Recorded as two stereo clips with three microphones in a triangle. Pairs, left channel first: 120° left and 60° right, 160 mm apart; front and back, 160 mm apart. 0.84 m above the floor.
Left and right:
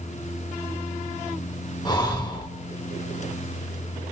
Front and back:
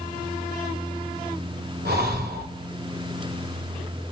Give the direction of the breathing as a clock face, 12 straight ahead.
6 o'clock.